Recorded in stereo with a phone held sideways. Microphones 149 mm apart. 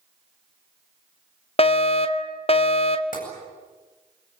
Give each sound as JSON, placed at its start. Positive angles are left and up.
{"t": 1.6, "sound": "a fire alarm", "side_deg": 40, "distance_m": 1.2}
{"t": 3.1, "sound": "tapping", "side_deg": 65, "distance_m": 8.0}